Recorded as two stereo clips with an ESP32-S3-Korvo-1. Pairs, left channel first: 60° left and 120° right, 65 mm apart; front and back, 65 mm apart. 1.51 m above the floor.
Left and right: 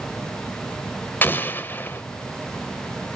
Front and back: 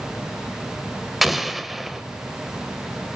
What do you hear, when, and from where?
1.2 s an explosion: 95° left, 1.5 m